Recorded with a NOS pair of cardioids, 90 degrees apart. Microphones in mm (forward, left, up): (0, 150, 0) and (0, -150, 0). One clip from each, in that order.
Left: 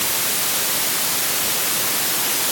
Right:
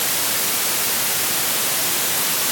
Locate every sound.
Only background noise.